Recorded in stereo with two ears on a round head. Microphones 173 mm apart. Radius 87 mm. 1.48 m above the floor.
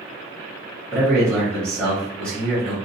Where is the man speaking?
5° left (ahead or behind), 1.7 m.